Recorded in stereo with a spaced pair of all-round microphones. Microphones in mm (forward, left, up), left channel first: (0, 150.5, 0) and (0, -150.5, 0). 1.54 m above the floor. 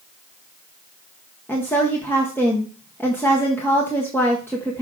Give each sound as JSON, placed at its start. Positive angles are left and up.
{"t": 1.5, "sound": "a woman speaking", "side_deg": 5, "distance_m": 1.4}